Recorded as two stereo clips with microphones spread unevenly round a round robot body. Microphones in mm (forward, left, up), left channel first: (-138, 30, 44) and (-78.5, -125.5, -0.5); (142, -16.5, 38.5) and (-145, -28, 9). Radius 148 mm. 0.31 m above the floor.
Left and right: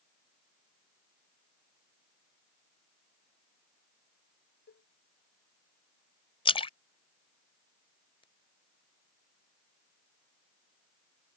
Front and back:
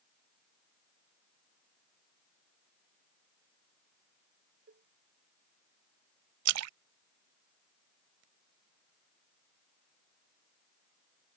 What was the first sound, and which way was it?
A cowbell, 120° left.